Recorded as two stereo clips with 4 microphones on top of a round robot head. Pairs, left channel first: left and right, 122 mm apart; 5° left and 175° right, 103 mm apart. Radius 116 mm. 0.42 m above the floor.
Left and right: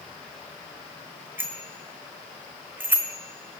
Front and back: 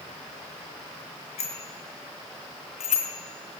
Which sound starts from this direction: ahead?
A bicycle bell, at 1.4 s.